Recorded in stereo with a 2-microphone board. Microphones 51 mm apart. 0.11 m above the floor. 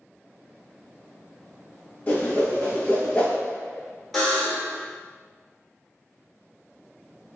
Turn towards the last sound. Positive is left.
turn(degrees=0)  # may be behind; listen again after turning